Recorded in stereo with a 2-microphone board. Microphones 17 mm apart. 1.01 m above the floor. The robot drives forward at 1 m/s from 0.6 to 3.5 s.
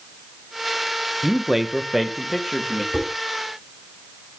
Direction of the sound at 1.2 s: 25° right (ahead or behind).